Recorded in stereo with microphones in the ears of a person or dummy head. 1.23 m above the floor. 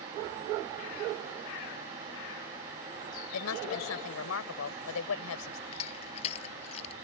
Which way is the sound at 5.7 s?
40° left (ahead or behind).